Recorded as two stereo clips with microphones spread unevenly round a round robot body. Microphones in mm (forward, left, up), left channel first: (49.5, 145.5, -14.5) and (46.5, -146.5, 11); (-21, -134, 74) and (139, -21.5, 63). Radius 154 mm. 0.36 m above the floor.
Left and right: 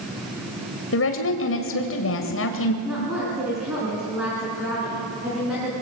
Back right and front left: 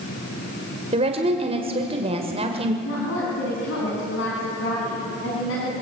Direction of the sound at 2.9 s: 175° right.